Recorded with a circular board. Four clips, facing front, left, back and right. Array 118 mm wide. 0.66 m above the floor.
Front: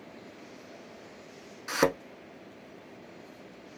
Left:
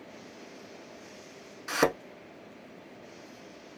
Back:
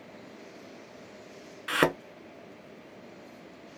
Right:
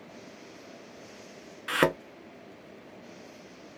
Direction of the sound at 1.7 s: 140° right.